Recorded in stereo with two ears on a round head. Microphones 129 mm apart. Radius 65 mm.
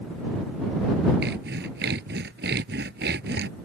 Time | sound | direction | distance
1.2 | sawing | 85° right | ?